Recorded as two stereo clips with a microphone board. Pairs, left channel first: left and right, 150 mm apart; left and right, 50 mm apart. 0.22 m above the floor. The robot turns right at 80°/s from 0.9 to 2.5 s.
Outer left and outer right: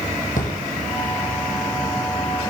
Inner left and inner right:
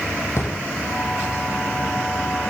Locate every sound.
0.4 s a drawer: 60° left (ahead or behind), 3.5 m